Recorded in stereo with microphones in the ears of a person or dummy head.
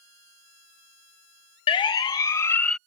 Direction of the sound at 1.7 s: 25° left (ahead or behind).